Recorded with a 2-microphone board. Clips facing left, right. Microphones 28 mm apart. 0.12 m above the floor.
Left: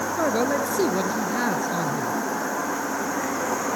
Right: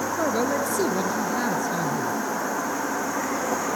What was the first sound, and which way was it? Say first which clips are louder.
A man speaking: left 2 dB; 15° left (ahead or behind).